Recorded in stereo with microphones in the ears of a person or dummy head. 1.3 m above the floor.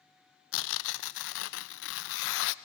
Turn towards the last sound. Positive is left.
turn(degrees=70)  # may be behind; listen again after turning